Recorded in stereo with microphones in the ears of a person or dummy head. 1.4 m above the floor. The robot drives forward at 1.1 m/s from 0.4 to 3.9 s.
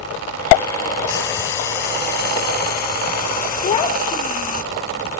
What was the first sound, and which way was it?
Frying, 60° left (ahead or behind).